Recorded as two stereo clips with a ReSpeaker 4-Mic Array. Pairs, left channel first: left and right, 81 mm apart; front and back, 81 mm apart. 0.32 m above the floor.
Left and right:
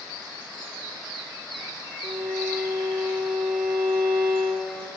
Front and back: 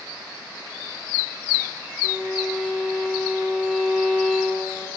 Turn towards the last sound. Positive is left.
turn(degrees=-105)